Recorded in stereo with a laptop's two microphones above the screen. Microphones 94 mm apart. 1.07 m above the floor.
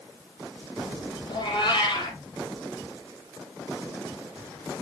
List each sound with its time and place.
1.3 s a cat meowing: 50° left (ahead or behind), 4 m